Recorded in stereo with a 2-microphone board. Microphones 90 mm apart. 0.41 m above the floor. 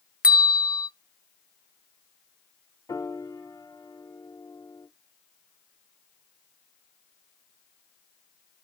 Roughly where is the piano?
Left.